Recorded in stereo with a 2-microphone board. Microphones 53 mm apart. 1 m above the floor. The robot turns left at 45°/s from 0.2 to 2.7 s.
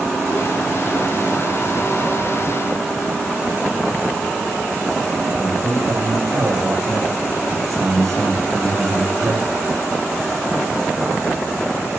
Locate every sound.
5.3 s a man speaking: 85° right, 5.5 m